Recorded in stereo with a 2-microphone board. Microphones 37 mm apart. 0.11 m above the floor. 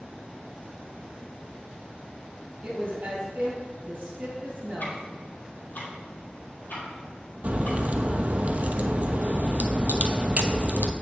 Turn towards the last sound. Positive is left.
turn(degrees=-40)  # may be behind; listen again after turning